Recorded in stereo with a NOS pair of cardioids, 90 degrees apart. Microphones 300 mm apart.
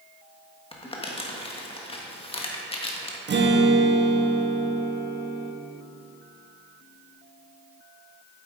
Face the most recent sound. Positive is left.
turn(degrees=-40)